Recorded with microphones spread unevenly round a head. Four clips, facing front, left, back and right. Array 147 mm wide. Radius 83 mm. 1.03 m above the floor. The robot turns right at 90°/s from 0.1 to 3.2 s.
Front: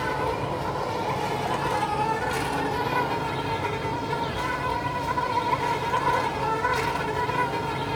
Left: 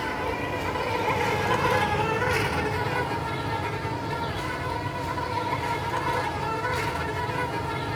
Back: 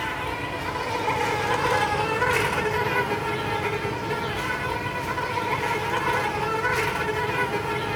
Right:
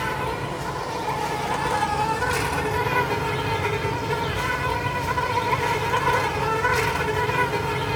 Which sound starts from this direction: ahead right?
An insect, at 0.0 s.